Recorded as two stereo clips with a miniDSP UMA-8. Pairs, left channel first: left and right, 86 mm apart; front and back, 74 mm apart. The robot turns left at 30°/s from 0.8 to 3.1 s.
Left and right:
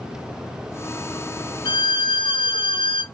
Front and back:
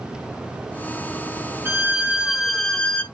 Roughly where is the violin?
Behind left.